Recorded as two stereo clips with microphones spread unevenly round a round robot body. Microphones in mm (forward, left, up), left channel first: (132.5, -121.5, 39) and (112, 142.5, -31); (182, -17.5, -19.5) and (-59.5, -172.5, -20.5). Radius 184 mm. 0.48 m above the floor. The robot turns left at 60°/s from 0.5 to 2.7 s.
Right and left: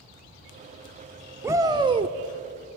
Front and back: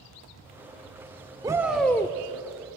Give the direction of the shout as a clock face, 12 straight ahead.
7 o'clock.